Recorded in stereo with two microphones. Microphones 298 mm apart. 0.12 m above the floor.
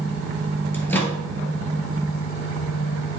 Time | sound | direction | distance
0.7 | a microwave | 5° left (ahead or behind) | 1.5 m